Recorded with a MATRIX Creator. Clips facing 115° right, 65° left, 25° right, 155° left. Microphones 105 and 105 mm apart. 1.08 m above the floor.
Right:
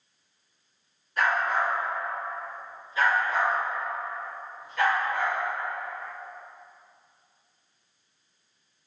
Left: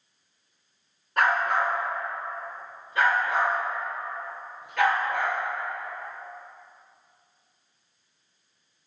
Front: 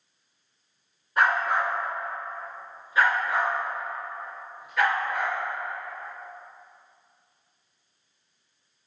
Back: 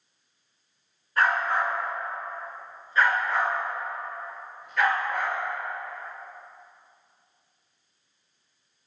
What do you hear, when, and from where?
1.2 s a dog barking: 45° left, 3 m; by 5.4 s 65° left, 5 m